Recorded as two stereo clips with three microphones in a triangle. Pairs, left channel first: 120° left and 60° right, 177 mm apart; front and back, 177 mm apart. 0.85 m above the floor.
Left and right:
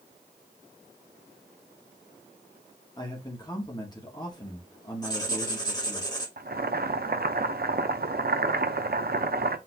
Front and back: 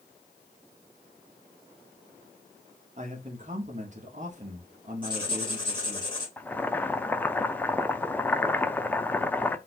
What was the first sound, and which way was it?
A man speaking, 175° left.